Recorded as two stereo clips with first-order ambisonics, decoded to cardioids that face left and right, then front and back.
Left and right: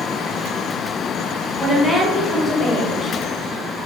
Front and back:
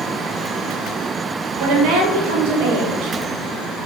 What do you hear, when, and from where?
1.6 s a woman speaking: 175° left, 0.6 m